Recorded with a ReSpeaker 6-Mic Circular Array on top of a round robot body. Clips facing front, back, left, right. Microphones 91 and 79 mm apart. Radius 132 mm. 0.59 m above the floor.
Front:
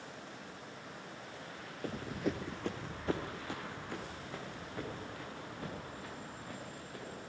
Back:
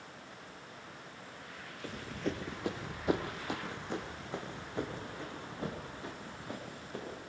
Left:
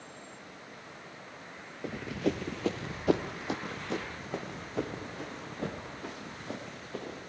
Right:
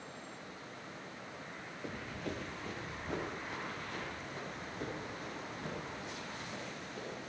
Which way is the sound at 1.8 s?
40° left.